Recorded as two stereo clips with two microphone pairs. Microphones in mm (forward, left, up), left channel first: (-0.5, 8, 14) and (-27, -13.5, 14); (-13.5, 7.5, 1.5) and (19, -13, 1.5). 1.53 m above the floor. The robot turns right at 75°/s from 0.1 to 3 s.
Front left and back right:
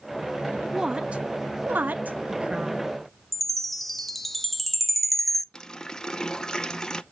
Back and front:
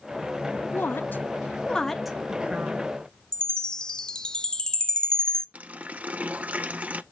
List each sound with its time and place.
0.7 s a woman speaking: 145° left, 0.8 m; by 2.9 s 50° right, 0.8 m
3.3 s a chime: 140° left, 0.6 m
5.5 s a running tap: 30° right, 0.6 m